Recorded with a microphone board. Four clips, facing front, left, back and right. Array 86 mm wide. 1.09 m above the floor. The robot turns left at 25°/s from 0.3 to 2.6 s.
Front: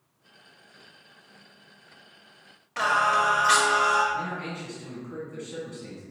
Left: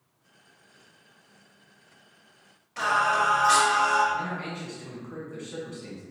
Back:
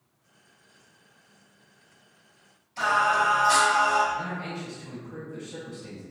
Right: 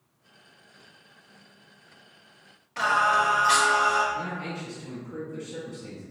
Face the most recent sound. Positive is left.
turn(degrees=65)